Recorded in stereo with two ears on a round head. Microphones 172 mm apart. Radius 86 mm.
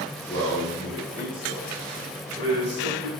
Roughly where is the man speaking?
Centre.